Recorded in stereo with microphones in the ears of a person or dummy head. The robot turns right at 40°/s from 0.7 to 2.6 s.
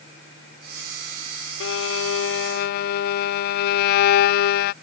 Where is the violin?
80° left; by 4.7 s 120° left.